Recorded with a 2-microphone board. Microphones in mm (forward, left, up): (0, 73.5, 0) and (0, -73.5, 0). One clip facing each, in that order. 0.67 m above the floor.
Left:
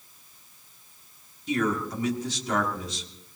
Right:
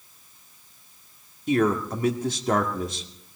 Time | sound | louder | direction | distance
1.5 | a man speaking | right 5 dB | 55° right (ahead or behind) | 1.9 m